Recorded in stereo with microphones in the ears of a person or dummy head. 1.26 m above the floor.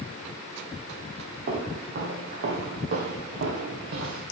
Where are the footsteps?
50° right (ahead or behind), 2 m; by 4.2 s 55° right (ahead or behind), 3.5 m.